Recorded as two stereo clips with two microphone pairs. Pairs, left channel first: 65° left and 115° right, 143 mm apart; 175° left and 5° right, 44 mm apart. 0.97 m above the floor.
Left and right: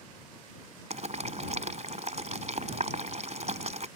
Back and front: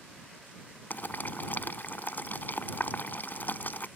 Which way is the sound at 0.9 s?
150° right.